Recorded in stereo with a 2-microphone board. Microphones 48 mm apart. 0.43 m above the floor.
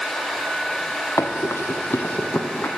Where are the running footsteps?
70° left (ahead or behind), 1.1 m; by 2.7 s 30° left (ahead or behind), 1.5 m.